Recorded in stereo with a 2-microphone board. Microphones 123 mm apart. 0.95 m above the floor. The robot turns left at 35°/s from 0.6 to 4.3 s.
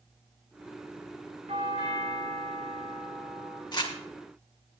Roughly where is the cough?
No cough in this recording.